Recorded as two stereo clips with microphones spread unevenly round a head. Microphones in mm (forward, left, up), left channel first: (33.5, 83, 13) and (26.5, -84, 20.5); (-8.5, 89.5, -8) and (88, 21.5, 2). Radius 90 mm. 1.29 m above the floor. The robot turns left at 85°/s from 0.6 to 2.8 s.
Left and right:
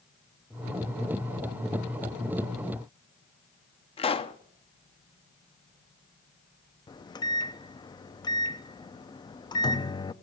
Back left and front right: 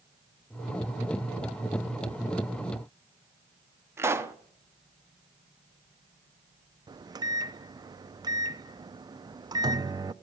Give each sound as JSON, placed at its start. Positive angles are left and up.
{"t": 4.0, "sound": "a pop", "azimuth_deg": 35, "distance_m": 0.9}
{"t": 6.9, "sound": "a microwave", "azimuth_deg": 25, "distance_m": 0.6}